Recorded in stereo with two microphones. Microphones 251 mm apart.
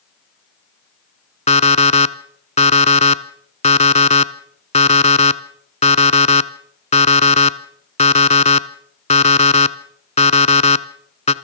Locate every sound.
1.5 s an alarm clock: 25° left (ahead or behind), 0.9 m